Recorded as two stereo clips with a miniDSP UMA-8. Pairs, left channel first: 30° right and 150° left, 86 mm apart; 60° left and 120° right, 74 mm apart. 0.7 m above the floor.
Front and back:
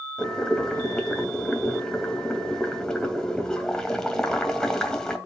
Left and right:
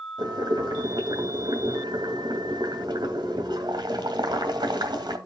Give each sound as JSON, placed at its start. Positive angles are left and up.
{"t": 0.2, "sound": "boiling", "azimuth_deg": -110, "distance_m": 2.5}